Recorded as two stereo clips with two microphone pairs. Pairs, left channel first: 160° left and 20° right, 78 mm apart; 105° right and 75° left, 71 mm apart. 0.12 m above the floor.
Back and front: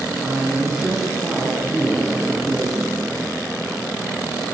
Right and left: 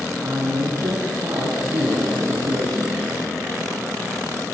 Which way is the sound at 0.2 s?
65° left.